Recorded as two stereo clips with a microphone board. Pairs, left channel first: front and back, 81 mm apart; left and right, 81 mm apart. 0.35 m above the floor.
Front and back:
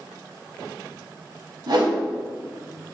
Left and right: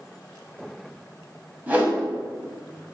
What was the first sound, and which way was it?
A whoosh, 160° right.